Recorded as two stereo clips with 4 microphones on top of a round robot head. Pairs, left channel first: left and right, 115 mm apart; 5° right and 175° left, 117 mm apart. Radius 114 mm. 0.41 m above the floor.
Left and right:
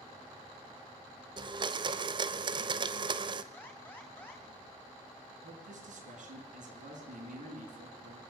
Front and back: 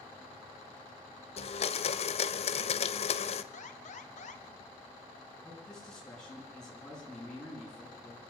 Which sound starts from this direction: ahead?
An alarm, at 3.5 s.